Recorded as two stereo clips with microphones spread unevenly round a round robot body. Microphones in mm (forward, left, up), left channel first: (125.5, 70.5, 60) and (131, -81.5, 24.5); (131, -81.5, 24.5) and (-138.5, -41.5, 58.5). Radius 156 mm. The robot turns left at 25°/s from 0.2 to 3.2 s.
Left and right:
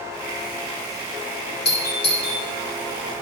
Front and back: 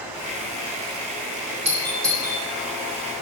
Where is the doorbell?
100° left, 3 m; by 2.4 s 80° left, 3 m.